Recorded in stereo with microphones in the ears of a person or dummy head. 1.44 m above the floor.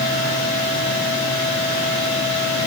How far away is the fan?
About 4 m.